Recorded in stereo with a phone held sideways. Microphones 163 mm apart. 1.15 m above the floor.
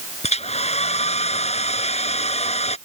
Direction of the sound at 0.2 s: 40° left (ahead or behind).